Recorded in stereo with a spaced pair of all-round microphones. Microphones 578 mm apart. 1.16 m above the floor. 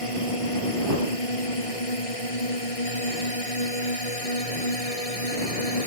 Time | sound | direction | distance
0.0 | a drone | 65° left (ahead or behind) | ?